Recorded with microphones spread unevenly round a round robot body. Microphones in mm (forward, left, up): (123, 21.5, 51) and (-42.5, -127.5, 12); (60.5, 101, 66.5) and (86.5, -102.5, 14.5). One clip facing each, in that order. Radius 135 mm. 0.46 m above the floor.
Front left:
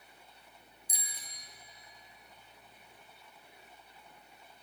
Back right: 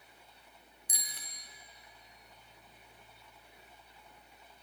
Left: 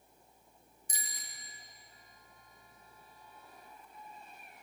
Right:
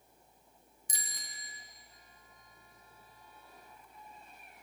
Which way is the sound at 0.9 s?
110° right.